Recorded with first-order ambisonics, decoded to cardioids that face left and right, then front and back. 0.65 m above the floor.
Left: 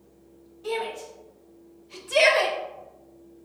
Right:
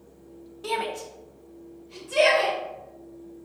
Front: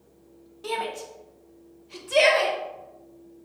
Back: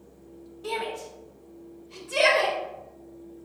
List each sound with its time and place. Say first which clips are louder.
0.6 s a shout: right 1 dB, front 1 dB; 60° right, 0.9 m; by 2.6 s 55° left, 1.0 m